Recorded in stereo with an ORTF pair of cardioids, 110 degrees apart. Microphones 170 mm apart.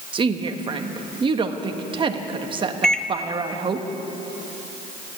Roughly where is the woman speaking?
Ahead right.